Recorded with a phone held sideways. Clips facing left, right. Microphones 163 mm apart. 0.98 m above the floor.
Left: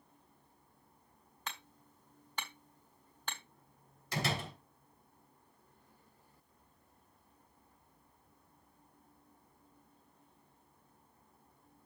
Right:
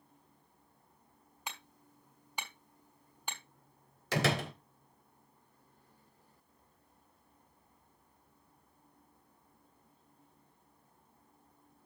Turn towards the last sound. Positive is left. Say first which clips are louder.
# right 6 dB
turn(degrees=-85)